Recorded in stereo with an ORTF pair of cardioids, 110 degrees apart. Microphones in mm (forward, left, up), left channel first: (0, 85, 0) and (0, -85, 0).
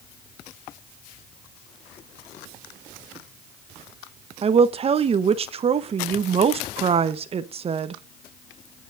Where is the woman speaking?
35° right, 0.8 m.